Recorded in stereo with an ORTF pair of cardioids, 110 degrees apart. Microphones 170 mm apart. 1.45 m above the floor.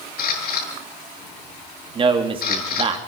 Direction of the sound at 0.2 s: 65° left.